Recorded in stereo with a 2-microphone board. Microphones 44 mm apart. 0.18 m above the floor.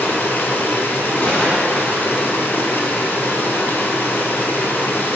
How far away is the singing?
I don't hear singing.